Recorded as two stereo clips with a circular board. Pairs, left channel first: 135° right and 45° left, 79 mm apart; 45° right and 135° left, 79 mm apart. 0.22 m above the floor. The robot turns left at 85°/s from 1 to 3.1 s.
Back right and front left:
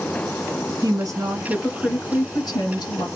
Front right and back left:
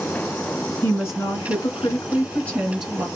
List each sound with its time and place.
0.8 s a woman speaking: 10° left, 2 m; by 3.0 s 160° right, 2 m